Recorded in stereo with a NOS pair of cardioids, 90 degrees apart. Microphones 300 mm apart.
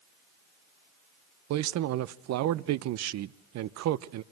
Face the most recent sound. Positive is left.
turn(degrees=-70)